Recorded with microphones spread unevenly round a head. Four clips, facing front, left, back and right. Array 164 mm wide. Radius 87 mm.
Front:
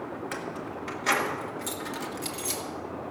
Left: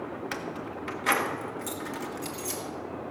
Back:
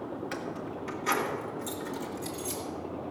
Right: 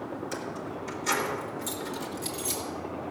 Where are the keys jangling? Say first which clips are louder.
Even, front 1 dB; 55° left, 1.3 m; by 2.6 s 15° left, 2 m.